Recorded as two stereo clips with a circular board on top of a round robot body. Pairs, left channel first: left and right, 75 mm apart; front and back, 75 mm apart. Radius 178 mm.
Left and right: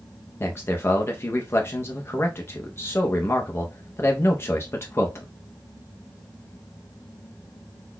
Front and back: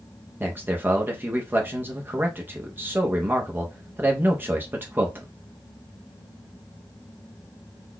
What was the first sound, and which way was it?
A man speaking, 130° left.